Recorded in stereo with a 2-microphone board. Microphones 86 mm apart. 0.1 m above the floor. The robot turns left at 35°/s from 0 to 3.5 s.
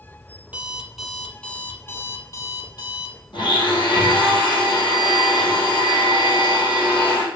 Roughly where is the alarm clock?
Behind.